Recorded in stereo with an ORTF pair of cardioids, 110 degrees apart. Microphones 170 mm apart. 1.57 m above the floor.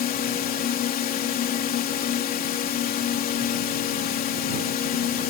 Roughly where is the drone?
Ahead left.